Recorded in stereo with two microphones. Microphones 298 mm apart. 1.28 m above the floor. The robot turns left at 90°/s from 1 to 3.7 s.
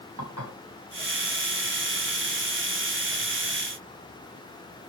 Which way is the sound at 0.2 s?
65° right (ahead or behind).